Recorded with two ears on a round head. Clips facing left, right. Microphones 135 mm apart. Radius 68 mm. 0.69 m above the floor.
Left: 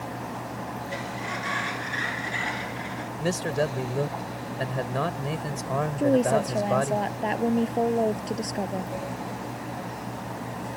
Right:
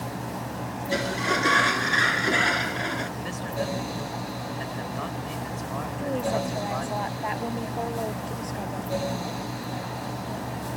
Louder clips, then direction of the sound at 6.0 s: Left 6 dB; 40° left (ahead or behind).